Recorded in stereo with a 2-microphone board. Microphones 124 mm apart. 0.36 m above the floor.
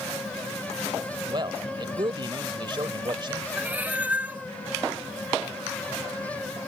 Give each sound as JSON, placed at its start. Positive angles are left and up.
{"t": 1.3, "sound": "a man speaking", "side_deg": -40}
{"t": 3.6, "sound": "a cat meowing", "side_deg": -15}